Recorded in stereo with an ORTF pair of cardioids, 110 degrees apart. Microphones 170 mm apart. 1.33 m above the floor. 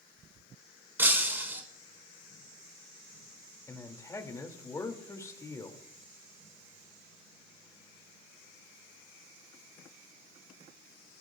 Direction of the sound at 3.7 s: 20° left.